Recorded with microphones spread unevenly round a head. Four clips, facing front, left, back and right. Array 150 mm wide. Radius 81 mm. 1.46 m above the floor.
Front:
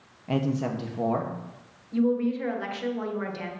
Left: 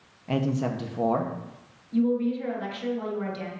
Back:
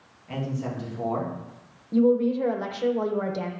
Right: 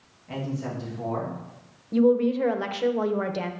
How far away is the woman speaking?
About 1.2 m.